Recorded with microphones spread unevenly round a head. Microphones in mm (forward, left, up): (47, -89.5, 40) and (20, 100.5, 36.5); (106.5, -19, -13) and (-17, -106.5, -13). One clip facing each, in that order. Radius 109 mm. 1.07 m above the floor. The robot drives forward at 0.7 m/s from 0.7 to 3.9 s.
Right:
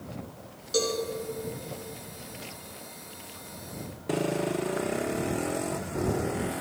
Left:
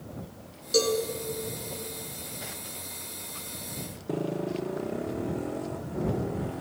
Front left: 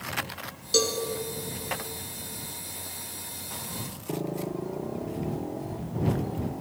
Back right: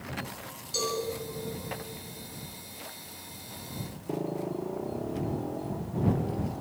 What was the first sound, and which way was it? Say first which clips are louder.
A cowbell: left 3 dB, front left 6 dB; 35° left.